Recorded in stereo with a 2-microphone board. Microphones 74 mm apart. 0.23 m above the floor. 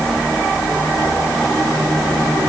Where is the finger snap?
No finger snap in this recording.